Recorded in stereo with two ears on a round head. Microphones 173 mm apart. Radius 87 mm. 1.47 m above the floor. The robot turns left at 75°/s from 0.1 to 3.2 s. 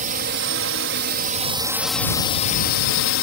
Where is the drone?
45° right; by 3.2 s 85° left.